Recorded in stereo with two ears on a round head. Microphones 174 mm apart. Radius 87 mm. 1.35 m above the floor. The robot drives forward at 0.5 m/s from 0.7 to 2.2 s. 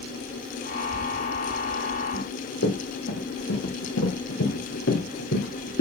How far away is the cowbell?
No cowbell in this recording.